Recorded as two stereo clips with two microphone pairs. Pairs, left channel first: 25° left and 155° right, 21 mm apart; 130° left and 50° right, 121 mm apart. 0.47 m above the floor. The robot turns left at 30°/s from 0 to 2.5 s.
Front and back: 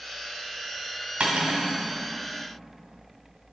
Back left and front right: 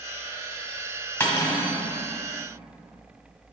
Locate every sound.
1.2 s cutlery clinking: 160° right, 1.5 m; by 1.8 s 175° right, 1.5 m